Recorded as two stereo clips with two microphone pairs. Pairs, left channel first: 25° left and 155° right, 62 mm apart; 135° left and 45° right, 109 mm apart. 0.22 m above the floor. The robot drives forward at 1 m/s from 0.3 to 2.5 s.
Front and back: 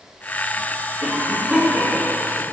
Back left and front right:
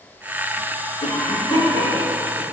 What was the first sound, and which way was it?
A cough, 130° left.